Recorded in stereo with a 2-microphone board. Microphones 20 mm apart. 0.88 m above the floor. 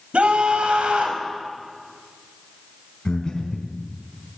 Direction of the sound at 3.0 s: 40° left (ahead or behind).